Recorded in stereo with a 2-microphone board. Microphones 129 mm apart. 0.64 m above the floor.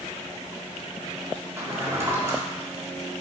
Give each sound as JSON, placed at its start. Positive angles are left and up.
{"t": 1.6, "sound": "a drawer", "side_deg": -20, "distance_m": 0.7}